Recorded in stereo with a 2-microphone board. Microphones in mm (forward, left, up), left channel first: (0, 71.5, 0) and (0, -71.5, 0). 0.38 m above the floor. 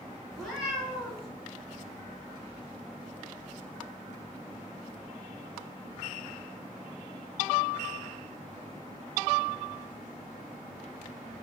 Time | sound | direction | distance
0.3 | a cat meowing | centre (ahead or behind) | 1.8 m